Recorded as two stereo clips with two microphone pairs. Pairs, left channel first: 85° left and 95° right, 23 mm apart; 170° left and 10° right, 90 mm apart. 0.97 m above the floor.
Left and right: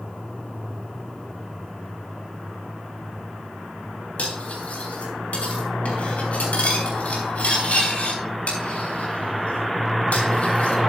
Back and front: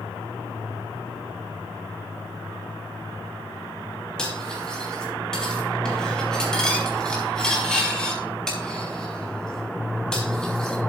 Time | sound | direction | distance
4.2 | cutlery clinking | 90° left | 4 m